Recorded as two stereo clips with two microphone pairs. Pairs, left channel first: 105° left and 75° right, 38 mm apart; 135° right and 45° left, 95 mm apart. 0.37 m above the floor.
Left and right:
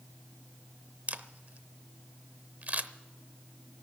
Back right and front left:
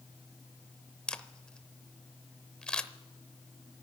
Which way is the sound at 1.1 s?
55° right.